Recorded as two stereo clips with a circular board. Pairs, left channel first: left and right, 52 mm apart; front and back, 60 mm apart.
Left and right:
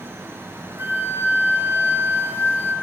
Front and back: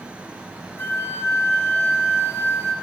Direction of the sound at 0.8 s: 50° right.